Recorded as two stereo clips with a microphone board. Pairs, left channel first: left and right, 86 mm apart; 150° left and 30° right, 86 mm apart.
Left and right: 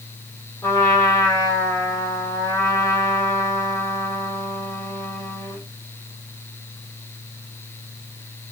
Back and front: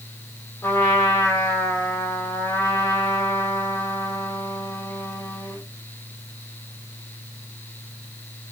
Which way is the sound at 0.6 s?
115° left.